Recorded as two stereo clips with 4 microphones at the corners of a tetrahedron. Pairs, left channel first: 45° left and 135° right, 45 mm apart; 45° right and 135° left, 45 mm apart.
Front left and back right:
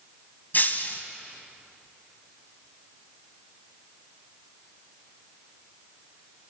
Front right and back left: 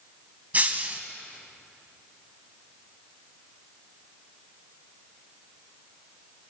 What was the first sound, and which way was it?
Breaking glass, 85° left.